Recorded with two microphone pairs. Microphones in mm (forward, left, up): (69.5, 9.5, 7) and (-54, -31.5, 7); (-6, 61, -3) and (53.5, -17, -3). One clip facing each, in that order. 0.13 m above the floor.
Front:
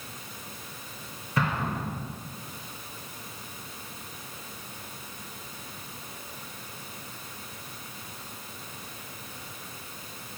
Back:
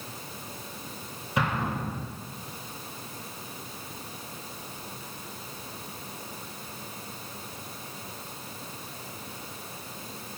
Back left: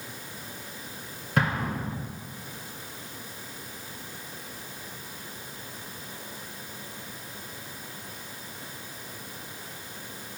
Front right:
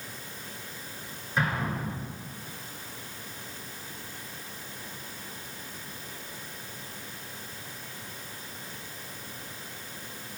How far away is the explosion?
About 2 m.